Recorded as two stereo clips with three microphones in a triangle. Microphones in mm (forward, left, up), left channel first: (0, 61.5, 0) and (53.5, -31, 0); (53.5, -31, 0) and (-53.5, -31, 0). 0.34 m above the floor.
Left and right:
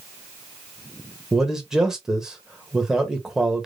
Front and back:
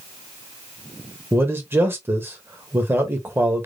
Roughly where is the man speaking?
Behind right.